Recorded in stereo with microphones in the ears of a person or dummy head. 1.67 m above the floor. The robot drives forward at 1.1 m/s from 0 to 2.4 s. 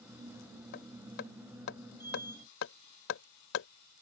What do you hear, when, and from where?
0.7 s hammering: 70° left (ahead or behind); by 3.7 s 80° left